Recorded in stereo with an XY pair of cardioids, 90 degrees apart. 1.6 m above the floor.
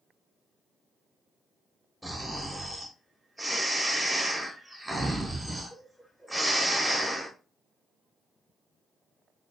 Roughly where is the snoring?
Ahead.